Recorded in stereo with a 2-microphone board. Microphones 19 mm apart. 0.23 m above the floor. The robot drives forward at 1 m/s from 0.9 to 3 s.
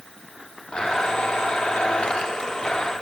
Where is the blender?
55° left (ahead or behind), 1.8 m.